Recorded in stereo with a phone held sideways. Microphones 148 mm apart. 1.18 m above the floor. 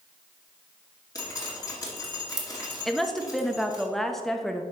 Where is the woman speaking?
5° left (ahead or behind), 0.8 m.